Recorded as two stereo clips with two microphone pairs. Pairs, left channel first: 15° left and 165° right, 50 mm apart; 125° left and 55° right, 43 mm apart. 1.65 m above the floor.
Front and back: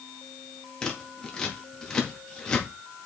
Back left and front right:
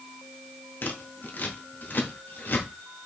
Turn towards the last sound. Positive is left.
turn(degrees=90)